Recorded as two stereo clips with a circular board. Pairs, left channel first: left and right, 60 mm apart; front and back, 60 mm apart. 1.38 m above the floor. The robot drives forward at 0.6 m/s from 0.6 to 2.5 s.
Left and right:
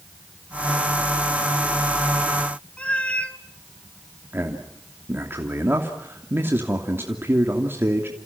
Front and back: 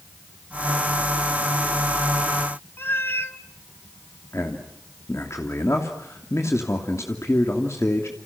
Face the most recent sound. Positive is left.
turn(degrees=-40)